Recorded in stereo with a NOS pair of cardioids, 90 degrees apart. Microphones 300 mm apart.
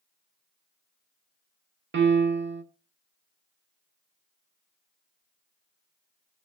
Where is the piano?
45° right, 0.8 m.